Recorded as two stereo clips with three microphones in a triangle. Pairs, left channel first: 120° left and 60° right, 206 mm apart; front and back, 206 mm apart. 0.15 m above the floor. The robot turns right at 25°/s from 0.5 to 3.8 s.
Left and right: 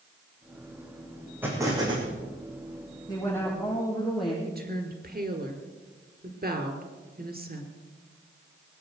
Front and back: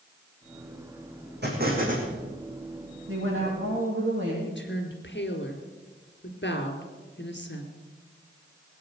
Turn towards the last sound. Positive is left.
turn(degrees=-20)